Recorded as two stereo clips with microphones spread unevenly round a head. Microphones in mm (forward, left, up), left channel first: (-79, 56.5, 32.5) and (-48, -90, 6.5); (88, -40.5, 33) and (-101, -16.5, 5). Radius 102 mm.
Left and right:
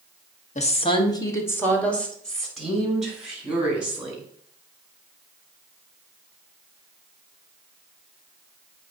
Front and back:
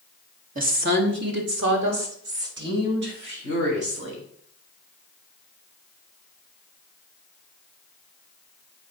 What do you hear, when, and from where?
0.6 s a woman speaking: 140° left, 1.3 m; by 4.2 s 160° right, 5.5 m